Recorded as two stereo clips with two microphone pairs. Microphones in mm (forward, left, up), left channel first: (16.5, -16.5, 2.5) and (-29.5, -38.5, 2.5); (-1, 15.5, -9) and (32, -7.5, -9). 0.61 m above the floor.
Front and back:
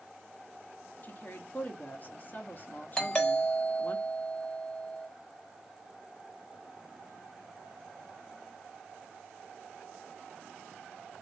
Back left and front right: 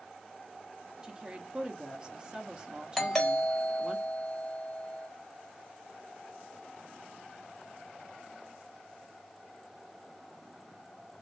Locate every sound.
1.0 s a woman speaking: 15° left, 0.7 m
3.0 s a doorbell: 70° left, 1.3 m